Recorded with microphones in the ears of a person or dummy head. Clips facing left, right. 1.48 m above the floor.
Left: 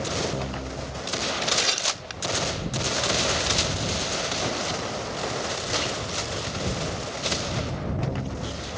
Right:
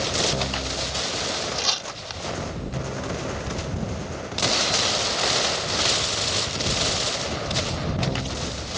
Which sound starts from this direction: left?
Tearing paper, at 1.6 s.